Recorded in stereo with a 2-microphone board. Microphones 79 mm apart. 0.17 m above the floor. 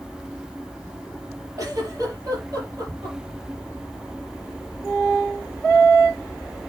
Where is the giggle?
50° right (ahead or behind), 5 m.